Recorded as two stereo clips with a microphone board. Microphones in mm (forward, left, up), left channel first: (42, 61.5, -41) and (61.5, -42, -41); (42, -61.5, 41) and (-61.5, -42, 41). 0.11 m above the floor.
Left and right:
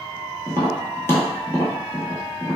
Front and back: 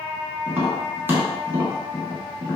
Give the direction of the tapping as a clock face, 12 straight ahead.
8 o'clock.